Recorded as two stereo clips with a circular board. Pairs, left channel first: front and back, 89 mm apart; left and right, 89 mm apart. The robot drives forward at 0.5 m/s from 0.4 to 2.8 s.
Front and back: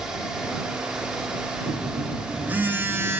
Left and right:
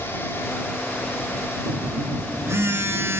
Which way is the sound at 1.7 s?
95° right.